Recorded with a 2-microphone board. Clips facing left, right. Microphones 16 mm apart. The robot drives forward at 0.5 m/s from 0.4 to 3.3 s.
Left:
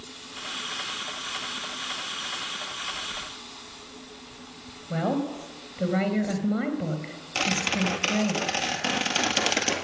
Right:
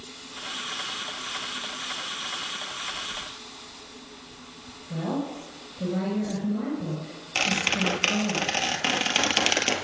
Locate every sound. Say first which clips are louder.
4.9 s a woman speaking: left 3 dB; 60° left (ahead or behind), 3.5 m
7.3 s a squeak: right 1 dB; 10° right (ahead or behind), 1.5 m